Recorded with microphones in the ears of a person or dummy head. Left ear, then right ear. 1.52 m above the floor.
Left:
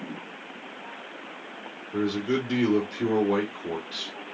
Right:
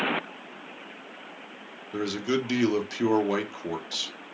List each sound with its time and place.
1.9 s a man speaking: 60° right (ahead or behind), 0.9 m